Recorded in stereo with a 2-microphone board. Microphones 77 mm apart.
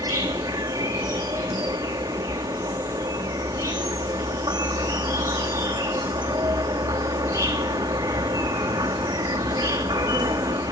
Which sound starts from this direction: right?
An insect, at 0.0 s.